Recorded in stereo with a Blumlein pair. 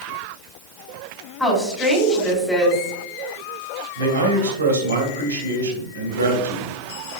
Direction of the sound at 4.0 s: 70° right.